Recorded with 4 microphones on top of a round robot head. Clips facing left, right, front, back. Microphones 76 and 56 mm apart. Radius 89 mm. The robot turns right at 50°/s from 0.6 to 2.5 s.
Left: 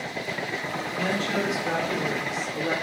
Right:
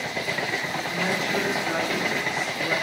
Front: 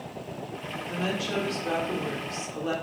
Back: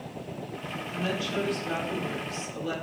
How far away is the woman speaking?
About 3 m.